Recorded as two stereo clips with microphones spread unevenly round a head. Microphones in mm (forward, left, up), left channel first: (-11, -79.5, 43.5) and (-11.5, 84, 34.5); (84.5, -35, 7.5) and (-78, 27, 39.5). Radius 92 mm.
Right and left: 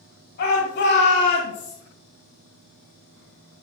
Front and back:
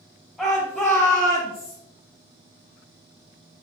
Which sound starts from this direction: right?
A shout, at 0.4 s.